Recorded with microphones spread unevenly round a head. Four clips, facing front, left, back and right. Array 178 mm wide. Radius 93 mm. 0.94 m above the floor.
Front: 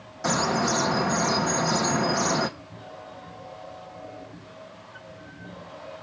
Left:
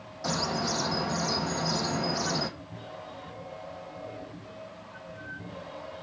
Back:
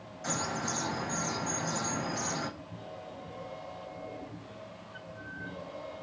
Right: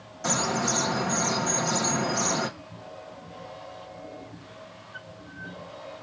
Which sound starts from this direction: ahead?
A bird, at 0.2 s.